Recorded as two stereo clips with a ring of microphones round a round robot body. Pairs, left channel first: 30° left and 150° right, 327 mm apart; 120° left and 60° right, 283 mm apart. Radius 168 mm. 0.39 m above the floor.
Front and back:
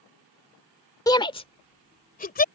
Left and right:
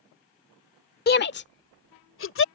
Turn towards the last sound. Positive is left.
turn(degrees=90)